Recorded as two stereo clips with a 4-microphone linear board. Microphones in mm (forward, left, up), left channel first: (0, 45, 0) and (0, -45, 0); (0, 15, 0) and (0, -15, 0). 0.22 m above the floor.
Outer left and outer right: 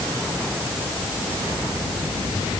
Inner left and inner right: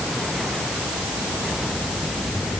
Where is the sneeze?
No sneeze in this recording.